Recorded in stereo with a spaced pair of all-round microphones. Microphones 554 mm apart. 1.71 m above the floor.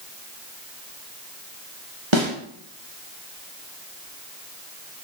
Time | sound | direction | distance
2.1 | a snare drum | 55° right (ahead or behind) | 2 m